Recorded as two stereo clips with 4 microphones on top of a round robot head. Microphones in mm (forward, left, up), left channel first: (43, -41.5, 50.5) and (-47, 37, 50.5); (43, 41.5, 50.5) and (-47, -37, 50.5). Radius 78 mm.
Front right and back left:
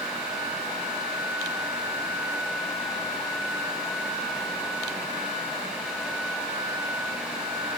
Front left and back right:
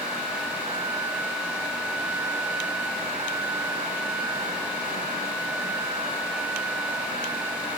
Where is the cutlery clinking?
No cutlery clinking in this recording.